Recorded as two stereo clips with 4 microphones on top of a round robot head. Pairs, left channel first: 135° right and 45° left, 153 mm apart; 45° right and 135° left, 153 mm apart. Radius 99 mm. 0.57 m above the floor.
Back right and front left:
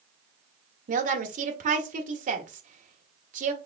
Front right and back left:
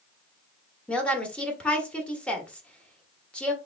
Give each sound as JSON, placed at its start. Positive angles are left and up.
{"t": 0.9, "sound": "a woman speaking", "azimuth_deg": 35, "distance_m": 1.3}